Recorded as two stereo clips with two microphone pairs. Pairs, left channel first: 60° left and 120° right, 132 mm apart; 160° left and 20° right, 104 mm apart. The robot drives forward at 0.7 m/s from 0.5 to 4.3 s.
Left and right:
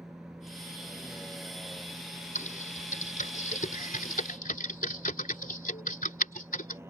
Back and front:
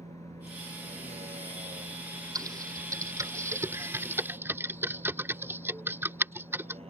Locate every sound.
0.0 s a vehicle: 30° right; by 6.9 s 50° right
2.4 s typing on a keyboard: 35° left; by 6.8 s 50° left